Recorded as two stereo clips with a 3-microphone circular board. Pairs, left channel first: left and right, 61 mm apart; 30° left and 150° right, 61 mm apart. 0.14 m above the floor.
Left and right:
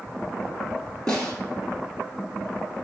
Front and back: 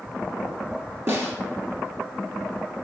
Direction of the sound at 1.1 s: 165° left.